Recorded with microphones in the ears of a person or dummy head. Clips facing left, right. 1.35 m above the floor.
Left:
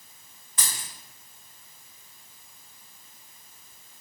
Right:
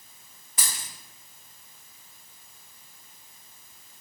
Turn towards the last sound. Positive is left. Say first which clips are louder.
# even
turn(degrees=-15)  # may be behind; listen again after turning